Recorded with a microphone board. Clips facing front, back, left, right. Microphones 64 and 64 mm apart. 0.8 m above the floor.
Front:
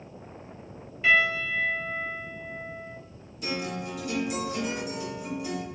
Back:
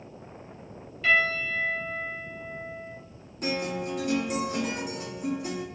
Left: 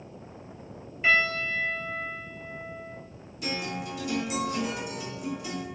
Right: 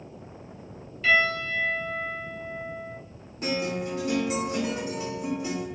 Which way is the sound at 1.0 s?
60° left.